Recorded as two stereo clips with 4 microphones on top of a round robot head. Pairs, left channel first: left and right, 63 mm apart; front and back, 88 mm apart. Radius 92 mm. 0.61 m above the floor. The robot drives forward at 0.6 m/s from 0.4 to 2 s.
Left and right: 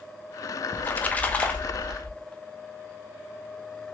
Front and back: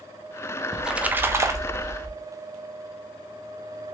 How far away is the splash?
About 0.8 m.